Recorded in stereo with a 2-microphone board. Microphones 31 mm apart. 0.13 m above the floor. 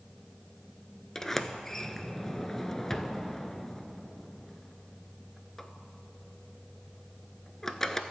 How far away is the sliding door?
About 0.6 m.